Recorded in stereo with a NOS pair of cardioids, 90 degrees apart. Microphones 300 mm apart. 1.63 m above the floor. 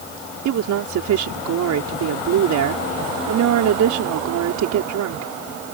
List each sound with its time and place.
0.5 s a woman speaking: 70° right